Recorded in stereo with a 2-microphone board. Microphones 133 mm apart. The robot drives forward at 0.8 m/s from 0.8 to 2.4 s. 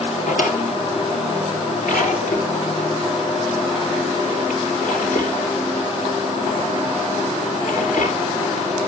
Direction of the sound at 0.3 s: 75° left (ahead or behind).